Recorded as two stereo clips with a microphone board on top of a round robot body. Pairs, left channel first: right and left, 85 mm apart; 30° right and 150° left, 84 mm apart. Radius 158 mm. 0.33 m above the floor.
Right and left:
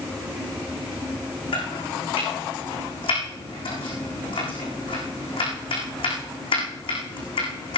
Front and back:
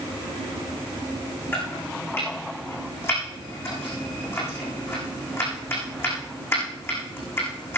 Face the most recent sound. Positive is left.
turn(degrees=-90)